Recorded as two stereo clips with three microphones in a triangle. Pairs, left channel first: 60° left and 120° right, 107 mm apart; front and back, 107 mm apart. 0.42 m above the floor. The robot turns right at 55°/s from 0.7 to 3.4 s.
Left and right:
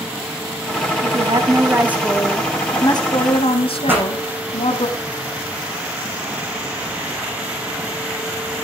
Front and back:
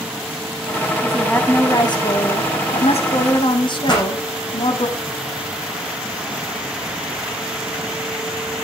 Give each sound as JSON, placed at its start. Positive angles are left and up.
{"t": 1.0, "sound": "a woman speaking", "azimuth_deg": -95, "distance_m": 3.0}
{"t": 3.9, "sound": "a pop", "azimuth_deg": -45, "distance_m": 10.0}